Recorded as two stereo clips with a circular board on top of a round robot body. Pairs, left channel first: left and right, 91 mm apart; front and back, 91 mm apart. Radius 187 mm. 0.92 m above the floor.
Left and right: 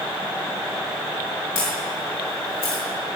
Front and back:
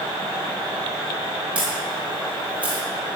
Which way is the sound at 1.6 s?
105° left.